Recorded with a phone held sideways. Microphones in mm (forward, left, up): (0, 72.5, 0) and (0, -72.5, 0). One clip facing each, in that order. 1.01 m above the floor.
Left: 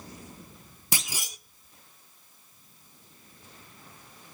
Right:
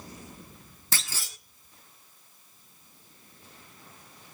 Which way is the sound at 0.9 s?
15° left (ahead or behind).